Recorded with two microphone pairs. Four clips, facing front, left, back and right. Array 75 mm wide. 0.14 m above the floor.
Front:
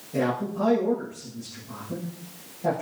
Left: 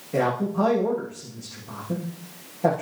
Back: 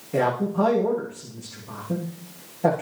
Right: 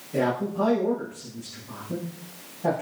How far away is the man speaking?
About 8 m.